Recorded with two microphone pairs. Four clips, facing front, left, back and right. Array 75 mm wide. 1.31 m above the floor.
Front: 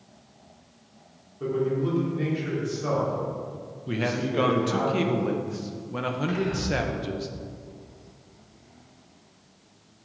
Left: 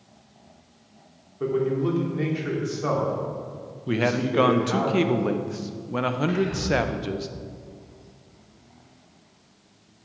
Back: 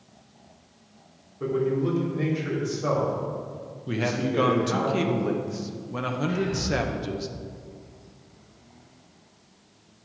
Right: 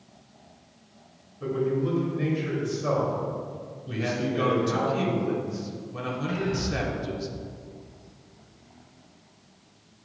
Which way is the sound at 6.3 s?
35° left.